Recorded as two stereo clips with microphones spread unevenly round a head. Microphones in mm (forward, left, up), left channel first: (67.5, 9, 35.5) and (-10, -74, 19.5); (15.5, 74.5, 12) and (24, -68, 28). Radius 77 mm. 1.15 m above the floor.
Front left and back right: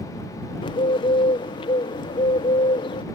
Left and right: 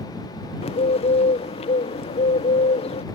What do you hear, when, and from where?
0.6 s a bird: 90° left